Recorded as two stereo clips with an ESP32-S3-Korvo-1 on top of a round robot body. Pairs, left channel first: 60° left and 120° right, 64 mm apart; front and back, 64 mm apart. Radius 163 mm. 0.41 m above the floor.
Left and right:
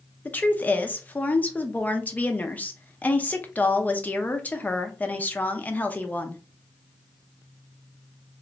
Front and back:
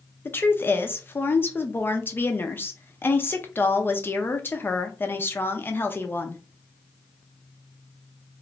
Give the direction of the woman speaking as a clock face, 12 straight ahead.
11 o'clock.